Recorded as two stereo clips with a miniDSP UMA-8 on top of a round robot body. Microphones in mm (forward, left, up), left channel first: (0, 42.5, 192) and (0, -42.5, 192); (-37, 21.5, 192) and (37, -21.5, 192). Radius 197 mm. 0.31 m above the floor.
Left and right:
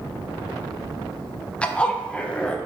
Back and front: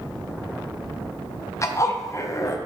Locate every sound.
1.6 s a zipper: 155° left, 0.7 m